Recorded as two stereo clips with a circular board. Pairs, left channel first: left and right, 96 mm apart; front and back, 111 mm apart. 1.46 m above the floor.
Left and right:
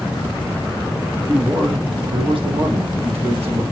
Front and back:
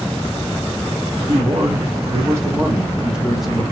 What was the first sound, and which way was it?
A man speaking, 155° right.